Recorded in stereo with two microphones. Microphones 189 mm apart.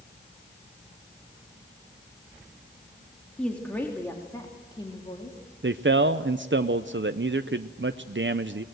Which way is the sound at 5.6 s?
80° right.